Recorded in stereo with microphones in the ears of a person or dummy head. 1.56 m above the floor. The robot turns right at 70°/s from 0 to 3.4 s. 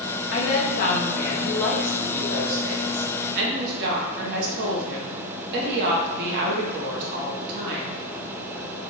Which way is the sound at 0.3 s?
80° left.